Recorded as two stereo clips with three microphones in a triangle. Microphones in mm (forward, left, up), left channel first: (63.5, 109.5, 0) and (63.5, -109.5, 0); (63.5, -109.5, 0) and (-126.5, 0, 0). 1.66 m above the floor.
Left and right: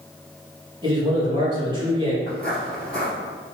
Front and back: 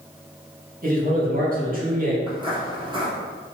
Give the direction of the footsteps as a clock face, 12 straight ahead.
7 o'clock.